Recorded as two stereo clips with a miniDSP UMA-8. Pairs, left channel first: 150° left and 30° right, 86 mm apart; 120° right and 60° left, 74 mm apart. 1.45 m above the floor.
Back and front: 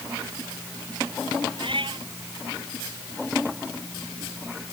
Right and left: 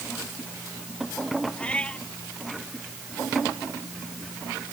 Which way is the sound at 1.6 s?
45° right.